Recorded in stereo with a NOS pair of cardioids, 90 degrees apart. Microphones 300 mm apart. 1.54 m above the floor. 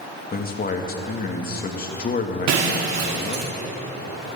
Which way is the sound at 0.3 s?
30° left.